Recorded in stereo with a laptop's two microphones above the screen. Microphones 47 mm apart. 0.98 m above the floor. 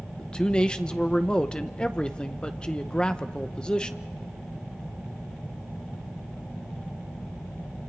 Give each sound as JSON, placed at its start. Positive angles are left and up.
{"t": 0.2, "sound": "a man speaking", "side_deg": 20, "distance_m": 0.7}